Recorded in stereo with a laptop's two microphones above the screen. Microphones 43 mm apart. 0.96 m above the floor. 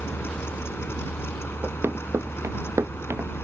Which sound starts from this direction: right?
Running footsteps, at 1.6 s.